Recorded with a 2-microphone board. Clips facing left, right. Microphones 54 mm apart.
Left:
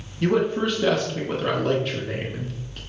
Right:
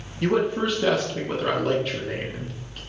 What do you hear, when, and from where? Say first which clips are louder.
0.2 s a man speaking: left 1 dB; 5° right (ahead or behind), 1.3 m